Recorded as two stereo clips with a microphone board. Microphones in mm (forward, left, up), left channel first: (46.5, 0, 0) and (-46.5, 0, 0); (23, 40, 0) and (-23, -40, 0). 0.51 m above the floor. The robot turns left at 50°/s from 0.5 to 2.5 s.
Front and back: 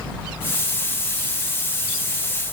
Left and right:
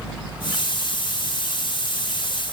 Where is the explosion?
I don't hear an explosion.